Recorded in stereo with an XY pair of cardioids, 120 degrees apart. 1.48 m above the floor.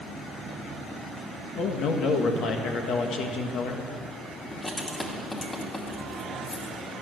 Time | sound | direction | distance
1.6 | a man speaking | 70° left | 1.6 m
4.5 | writing | 20° left | 2 m